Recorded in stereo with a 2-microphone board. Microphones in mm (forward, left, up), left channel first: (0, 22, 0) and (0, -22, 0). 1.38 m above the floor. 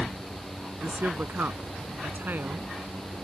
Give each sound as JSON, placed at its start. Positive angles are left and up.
{"t": 0.8, "sound": "a woman speaking", "side_deg": -45}